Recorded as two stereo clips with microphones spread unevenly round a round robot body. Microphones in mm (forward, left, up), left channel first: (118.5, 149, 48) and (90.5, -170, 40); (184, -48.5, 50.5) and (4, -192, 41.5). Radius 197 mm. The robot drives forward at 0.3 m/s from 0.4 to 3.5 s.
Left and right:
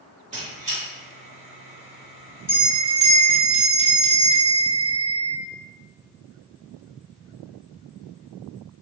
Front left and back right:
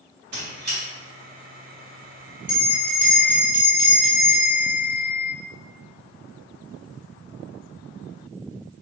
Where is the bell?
135° left, 1.7 m; by 5.3 s 140° left, 1.9 m.